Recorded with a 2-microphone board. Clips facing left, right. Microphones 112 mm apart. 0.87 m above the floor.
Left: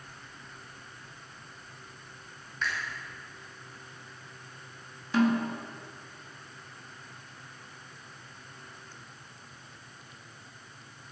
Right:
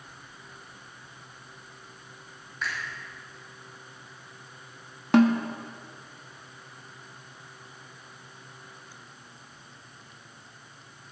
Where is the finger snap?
10° right (ahead or behind), 5.5 m.